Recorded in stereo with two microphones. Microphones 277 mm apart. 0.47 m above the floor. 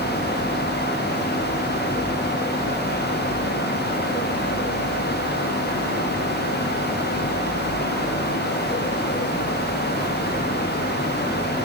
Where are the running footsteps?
I don't hear running footsteps.